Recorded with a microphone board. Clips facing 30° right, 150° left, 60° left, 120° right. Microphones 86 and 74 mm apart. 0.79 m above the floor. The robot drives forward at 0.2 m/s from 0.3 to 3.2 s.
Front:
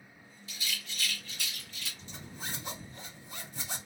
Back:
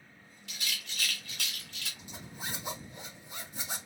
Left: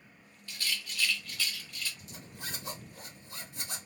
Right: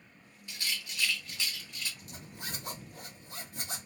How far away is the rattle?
About 0.9 m.